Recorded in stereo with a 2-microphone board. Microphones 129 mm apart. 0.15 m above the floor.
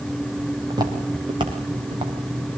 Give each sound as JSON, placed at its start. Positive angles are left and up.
{"t": 0.7, "sound": "footsteps", "side_deg": -35, "distance_m": 5.0}